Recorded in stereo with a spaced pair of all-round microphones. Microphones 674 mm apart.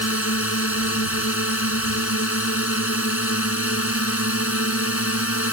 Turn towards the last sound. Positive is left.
turn(degrees=20)  # may be behind; listen again after turning